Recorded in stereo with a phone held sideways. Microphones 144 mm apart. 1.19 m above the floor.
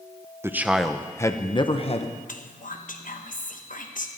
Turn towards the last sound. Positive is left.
turn(degrees=65)  # may be behind; listen again after turning